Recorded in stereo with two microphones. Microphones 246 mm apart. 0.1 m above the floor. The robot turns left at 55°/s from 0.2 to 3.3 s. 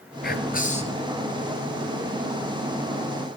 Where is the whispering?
75° left, 1.7 m; by 1.1 s 30° left, 1.7 m.